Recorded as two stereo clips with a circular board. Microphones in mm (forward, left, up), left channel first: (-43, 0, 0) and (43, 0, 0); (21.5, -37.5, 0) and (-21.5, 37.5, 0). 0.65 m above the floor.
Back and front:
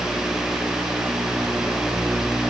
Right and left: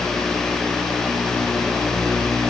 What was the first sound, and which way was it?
Only background noise.